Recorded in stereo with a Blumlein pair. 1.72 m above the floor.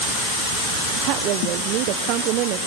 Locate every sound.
1.0 s a woman speaking: 40° right, 1.3 m